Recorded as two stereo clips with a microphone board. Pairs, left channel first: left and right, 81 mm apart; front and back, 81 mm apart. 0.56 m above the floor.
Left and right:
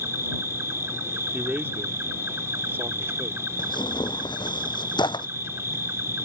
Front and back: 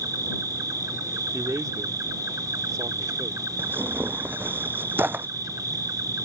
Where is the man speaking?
145° right.